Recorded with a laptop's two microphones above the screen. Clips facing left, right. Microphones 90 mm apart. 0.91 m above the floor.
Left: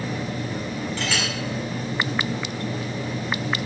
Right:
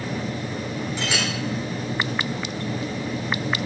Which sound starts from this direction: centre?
A clink, at 1.0 s.